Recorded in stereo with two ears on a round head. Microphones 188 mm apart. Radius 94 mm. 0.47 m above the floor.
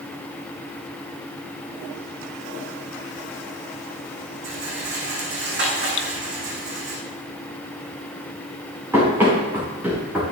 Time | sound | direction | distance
4.4 | a rattle | 55° right (ahead or behind) | 5 m
6.0 | dripping | 65° left (ahead or behind) | 0.7 m
8.9 | running footsteps | 10° right (ahead or behind) | 6 m